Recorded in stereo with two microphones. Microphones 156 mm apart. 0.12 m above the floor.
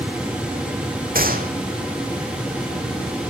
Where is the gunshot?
70° right (ahead or behind), 2 m.